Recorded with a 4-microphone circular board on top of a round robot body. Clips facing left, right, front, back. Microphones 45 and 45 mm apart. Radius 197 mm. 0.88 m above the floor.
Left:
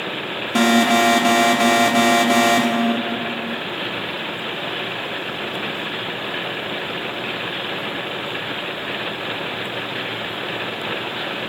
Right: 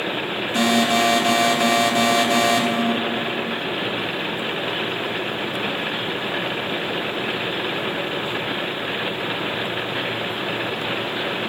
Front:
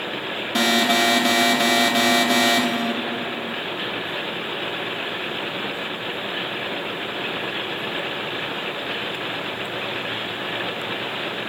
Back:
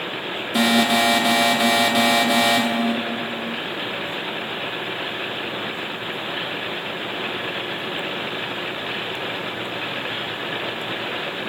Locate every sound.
0.6 s an alarm: 95° left, 2.5 m